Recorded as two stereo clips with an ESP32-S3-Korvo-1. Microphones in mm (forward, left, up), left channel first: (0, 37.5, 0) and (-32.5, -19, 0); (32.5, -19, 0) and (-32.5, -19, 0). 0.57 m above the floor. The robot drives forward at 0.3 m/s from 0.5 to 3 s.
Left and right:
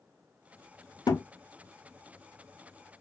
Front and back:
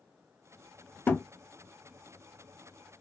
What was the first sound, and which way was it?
A thud, 60° left.